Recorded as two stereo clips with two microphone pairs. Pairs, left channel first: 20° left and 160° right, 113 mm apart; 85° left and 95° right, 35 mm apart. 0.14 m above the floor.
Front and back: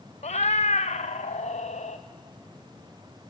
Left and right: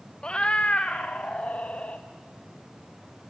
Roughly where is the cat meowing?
Ahead.